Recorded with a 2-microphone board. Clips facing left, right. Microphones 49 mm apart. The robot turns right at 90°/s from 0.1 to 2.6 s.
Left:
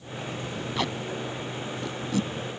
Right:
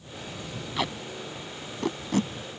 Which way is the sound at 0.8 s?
Centre (ahead or behind).